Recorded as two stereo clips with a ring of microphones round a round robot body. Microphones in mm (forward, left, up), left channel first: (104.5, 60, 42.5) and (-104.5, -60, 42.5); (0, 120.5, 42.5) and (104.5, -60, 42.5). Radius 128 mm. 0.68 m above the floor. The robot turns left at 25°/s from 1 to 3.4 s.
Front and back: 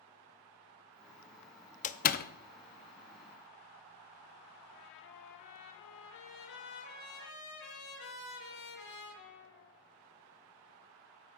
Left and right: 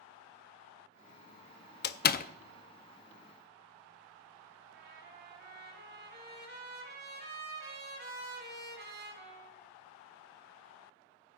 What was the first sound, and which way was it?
A door slam, 85° left.